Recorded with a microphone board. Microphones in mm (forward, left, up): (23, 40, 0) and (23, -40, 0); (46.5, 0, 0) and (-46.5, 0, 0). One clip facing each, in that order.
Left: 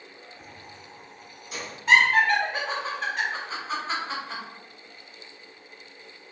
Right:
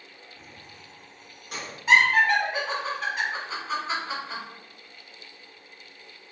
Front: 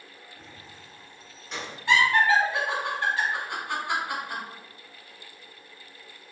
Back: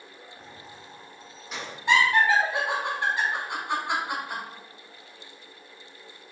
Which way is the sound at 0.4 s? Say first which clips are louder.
Left 2 dB, back 3 dB; 95° right.